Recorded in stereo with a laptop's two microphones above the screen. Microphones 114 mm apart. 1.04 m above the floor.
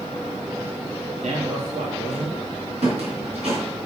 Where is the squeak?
70° right (ahead or behind), 3.5 m.